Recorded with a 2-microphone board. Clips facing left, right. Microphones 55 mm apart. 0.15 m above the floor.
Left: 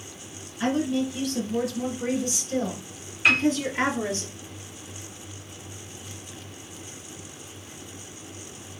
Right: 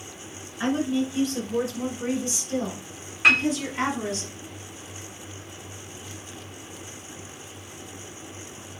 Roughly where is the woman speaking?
Right.